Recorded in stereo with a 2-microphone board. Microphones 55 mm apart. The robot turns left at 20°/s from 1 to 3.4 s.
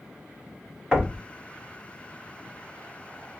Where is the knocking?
20° right (ahead or behind), 1.1 m; by 1.2 s 15° right (ahead or behind), 1.1 m.